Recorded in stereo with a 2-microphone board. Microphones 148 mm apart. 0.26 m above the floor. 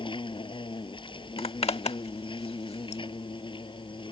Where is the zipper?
40° left (ahead or behind).